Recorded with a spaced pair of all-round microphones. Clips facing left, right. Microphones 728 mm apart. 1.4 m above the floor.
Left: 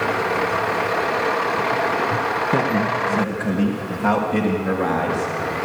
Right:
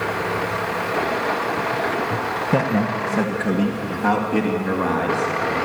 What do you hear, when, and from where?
2.5 s a man speaking: 20° right (ahead or behind), 1.2 m; by 5.7 s 25° left (ahead or behind), 3.5 m